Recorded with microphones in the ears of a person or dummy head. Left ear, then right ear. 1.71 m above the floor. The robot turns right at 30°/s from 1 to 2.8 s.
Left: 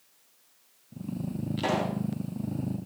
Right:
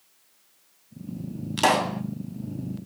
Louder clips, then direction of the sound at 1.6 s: Right 8 dB; 40° right (ahead or behind).